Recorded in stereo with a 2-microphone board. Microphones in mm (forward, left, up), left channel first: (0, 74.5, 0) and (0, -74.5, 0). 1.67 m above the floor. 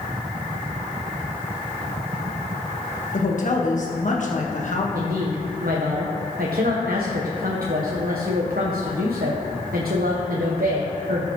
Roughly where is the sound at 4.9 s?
Right.